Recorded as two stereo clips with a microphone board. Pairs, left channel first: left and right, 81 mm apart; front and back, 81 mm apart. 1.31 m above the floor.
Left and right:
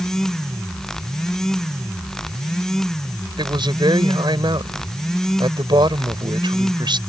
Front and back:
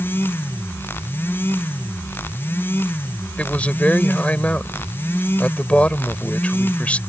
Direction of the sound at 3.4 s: 70° right.